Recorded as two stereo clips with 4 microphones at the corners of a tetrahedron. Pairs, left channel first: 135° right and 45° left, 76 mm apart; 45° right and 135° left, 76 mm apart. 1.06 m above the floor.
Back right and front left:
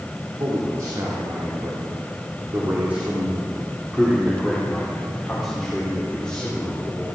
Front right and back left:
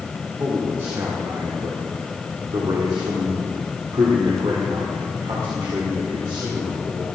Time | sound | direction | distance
0.4 | a man speaking | 75° left | 2.5 m